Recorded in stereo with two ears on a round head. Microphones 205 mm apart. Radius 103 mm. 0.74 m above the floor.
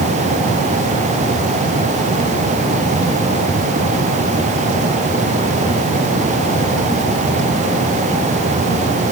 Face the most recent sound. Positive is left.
No sound to turn to.